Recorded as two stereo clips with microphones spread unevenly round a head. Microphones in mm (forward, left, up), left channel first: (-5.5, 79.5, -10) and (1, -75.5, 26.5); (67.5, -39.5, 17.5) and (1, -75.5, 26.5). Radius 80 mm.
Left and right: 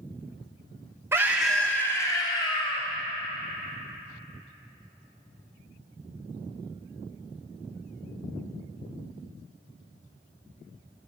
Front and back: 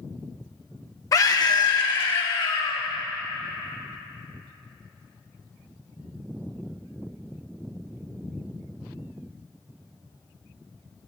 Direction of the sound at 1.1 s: 15° right.